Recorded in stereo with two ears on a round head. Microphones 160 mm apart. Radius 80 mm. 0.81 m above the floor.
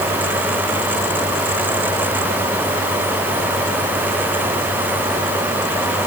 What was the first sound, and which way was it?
Only background noise.